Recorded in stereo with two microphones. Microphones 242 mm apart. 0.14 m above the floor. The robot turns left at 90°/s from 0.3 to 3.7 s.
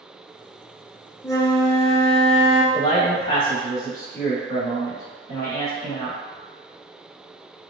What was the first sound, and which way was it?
A flute, 165° left.